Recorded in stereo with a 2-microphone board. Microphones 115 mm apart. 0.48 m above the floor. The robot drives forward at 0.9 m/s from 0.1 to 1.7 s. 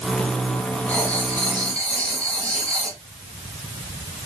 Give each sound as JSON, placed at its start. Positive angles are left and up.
{"t": 0.9, "sound": "writing", "side_deg": 15, "distance_m": 1.3}